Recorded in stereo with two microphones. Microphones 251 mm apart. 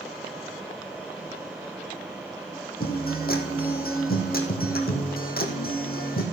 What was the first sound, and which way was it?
A guitar, 40° left (ahead or behind).